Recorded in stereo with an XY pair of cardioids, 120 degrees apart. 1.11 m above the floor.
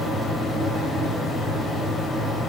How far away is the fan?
About 1.8 m.